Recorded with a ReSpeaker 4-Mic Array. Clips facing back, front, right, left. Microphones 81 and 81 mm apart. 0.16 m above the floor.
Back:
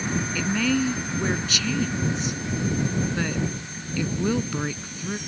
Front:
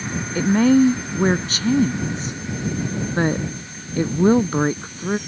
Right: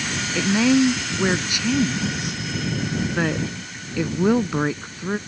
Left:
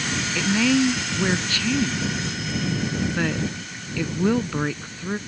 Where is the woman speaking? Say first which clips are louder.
Front 11 dB, right 3 dB; 25° right.